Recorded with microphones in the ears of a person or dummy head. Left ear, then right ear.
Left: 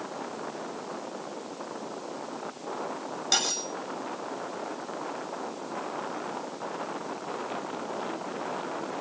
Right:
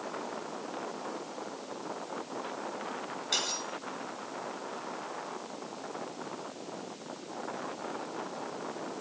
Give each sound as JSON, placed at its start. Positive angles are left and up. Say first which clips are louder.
{"t": 3.3, "sound": "cutlery clinking", "louder": "left 5 dB", "side_deg": 85, "distance_m": 6.0}